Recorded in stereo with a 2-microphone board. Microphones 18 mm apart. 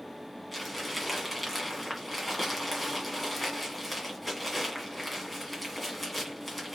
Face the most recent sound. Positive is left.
turn(degrees=0)  # may be behind; listen again after turning